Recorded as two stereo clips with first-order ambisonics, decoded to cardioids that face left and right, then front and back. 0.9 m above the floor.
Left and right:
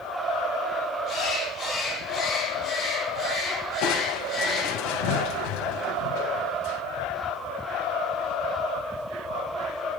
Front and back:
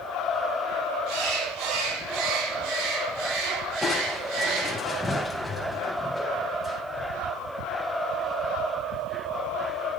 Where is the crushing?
80° left, 3 m.